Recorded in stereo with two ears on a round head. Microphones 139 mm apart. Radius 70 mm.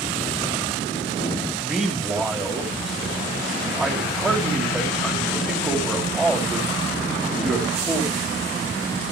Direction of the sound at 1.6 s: 5° right (ahead or behind).